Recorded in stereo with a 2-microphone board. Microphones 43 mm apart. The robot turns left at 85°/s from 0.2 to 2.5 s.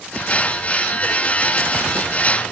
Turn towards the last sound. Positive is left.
No sound to turn to.